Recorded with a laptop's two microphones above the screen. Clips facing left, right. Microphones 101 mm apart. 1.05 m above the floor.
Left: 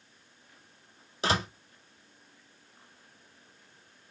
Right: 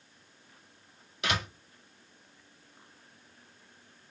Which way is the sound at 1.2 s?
35° left (ahead or behind).